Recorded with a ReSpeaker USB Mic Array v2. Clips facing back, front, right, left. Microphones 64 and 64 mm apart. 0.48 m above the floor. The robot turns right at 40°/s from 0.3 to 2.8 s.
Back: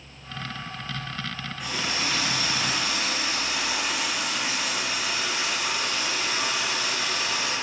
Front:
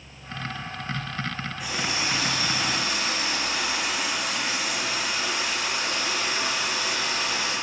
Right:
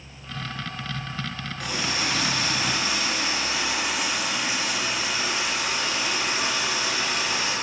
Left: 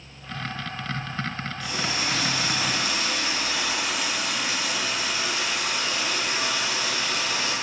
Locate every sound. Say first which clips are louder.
1.6 s a running tap: even, right 2 dB; 85° right, 3 m; by 7.5 s 40° right, 3 m